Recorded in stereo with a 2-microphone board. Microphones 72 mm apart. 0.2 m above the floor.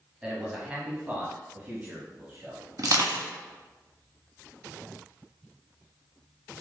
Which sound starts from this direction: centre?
A man speaking, at 0.2 s.